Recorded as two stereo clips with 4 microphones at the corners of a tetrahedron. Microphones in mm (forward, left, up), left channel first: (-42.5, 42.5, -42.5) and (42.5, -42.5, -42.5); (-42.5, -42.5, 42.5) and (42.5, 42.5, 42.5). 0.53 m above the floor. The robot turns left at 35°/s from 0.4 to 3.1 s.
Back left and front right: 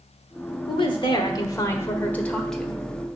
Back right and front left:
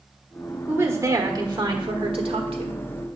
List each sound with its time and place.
0.7 s a woman speaking: 115° left, 1.4 m; by 2.8 s 40° left, 1.4 m